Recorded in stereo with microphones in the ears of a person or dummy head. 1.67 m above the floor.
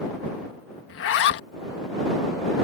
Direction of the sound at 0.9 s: 65° left (ahead or behind).